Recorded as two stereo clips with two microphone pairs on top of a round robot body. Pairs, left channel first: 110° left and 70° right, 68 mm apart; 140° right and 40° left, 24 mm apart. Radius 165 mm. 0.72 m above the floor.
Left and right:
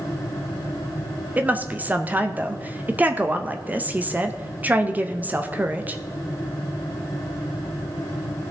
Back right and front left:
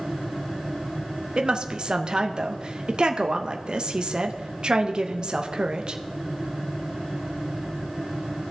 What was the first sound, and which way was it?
A woman speaking, straight ahead.